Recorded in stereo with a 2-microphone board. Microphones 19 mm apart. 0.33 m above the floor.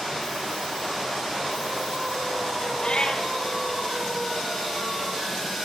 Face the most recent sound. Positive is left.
turn(degrees=50)  # may be behind; listen again after turning